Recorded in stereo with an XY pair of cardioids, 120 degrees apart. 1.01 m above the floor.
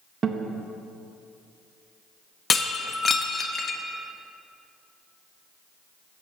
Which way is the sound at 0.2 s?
35° right.